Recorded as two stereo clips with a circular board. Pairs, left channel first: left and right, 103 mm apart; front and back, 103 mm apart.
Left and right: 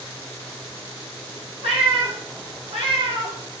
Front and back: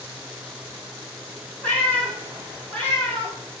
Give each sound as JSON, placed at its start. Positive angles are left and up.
{"t": 1.6, "sound": "a cat meowing", "azimuth_deg": -75, "distance_m": 3.0}